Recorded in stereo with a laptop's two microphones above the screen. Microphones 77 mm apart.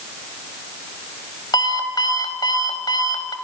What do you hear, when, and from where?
1.5 s an alarm clock: 75° left (ahead or behind), 2 m